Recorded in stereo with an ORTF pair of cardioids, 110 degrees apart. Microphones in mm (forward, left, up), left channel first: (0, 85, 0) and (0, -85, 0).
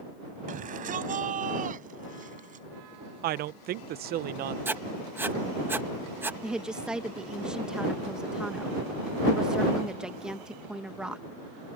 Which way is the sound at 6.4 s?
5° right.